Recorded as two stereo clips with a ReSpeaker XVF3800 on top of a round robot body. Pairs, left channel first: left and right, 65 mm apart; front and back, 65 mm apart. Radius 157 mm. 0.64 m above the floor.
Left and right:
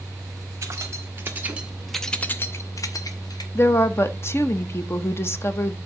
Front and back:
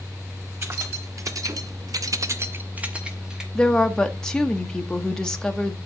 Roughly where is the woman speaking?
Left.